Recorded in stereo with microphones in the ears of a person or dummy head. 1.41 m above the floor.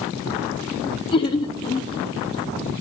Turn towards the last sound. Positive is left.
turn(degrees=25)  # may be behind; listen again after turning